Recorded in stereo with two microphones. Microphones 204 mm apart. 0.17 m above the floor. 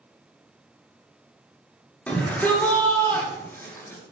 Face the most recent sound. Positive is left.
turn(degrees=15)  # may be behind; listen again after turning